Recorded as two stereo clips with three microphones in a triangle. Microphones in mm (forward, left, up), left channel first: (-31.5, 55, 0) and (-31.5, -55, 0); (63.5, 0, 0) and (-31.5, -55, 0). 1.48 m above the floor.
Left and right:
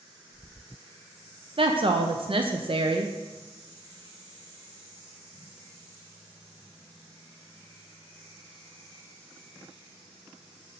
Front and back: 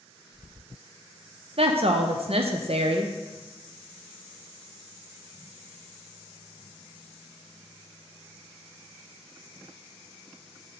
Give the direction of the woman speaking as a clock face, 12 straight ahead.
4 o'clock.